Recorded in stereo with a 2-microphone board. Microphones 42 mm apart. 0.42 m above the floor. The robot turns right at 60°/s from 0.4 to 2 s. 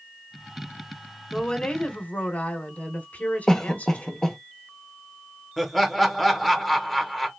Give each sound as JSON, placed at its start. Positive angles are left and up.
{"t": 1.3, "sound": "a woman speaking", "azimuth_deg": 15, "distance_m": 1.2}
{"t": 3.5, "sound": "a cough", "side_deg": 15, "distance_m": 0.8}
{"t": 5.6, "sound": "laughter", "side_deg": 5, "distance_m": 1.0}